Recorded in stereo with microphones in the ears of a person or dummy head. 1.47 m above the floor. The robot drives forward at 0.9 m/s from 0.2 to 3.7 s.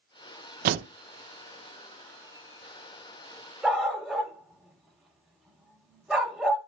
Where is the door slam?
40° right (ahead or behind), 0.8 m; by 0.9 s 45° right (ahead or behind), 0.7 m.